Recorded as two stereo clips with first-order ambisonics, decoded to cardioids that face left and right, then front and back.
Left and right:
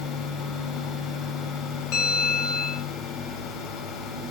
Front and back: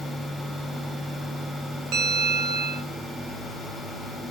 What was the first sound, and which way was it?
A bell, 135° left.